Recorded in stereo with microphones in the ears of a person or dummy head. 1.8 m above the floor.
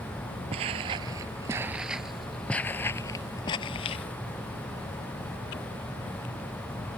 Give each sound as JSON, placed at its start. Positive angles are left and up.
{"t": 0.5, "sound": "footsteps", "side_deg": -35}